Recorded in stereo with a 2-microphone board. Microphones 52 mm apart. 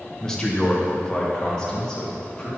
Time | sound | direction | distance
0.2 | a man speaking | 15° left (ahead or behind) | 1.0 m